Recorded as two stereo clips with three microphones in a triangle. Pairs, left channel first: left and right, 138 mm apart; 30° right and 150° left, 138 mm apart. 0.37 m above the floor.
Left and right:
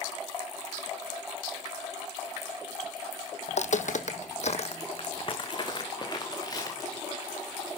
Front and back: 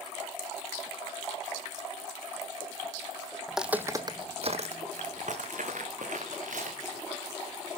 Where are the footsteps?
60° left, 1.0 m; by 7.0 s 150° left, 3.5 m.